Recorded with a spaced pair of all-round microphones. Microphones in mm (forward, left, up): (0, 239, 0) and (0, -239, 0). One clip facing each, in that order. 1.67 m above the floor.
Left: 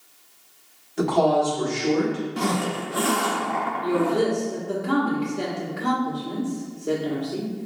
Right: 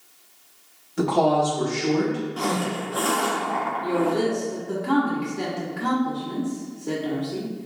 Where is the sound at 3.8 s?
10° right (ahead or behind), 1.0 m.